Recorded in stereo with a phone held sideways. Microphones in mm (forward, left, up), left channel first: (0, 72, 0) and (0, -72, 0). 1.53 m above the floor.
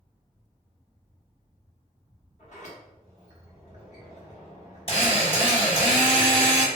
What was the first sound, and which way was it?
A sliding door, 55° left (ahead or behind).